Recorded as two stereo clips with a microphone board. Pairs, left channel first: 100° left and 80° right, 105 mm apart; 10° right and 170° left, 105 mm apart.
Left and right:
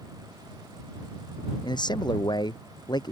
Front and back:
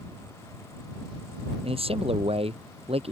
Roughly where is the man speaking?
Behind left.